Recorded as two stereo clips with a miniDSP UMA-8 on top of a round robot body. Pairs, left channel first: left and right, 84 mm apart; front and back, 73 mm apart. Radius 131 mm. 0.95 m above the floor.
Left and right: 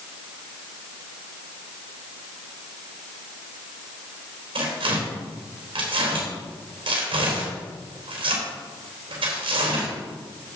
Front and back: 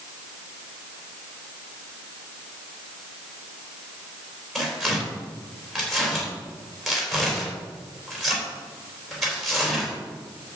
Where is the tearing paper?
90° right, 3.5 m.